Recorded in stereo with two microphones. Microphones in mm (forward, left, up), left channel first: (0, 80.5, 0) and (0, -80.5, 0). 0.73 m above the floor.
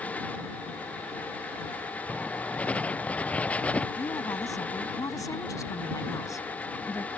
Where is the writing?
10° left (ahead or behind).